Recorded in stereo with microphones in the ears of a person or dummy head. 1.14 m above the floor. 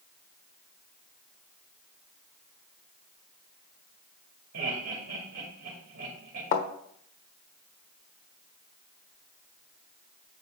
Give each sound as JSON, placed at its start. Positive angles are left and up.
{"t": 4.5, "sound": "laughter", "side_deg": -65, "distance_m": 2.5}
{"t": 6.5, "sound": "a thud", "side_deg": 45, "distance_m": 1.1}